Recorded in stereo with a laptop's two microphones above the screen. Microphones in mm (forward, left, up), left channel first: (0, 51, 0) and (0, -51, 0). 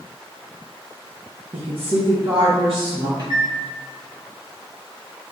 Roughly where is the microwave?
Right.